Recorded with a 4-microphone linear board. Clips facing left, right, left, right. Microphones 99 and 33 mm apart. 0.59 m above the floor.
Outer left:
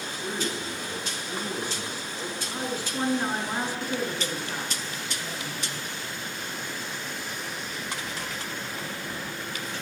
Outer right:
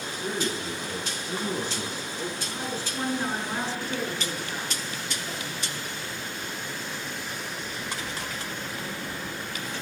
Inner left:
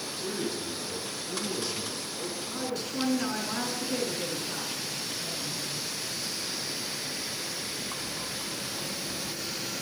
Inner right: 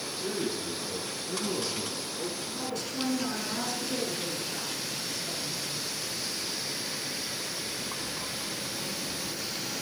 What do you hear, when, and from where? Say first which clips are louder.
0.2 s a man speaking: outer right 2 dB, inner right 1 dB; 15° right (ahead or behind), 9.5 m; by 2.4 s 25° right (ahead or behind), 10.5 m
2.5 s a woman speaking: outer left 1 dB, inner left 1 dB; 15° left (ahead or behind), 7 m